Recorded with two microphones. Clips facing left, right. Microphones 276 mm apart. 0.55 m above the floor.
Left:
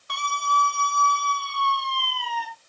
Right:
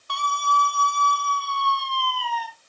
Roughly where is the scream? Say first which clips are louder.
Right 2 dB; left.